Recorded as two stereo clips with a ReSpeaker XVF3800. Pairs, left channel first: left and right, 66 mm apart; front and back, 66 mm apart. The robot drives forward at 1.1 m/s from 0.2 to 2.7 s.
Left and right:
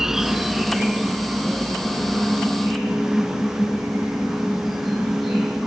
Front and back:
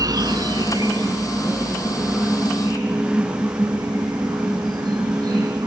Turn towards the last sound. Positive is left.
turn(degrees=180)